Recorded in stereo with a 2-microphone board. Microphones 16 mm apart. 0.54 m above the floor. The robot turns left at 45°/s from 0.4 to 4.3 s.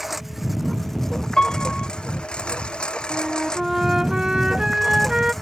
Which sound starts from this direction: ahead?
A flute, at 3.1 s.